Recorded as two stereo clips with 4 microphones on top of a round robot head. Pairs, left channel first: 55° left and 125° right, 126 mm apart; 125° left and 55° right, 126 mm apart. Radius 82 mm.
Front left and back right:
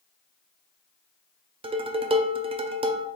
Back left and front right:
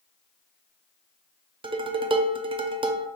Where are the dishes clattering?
95° right, 0.6 m.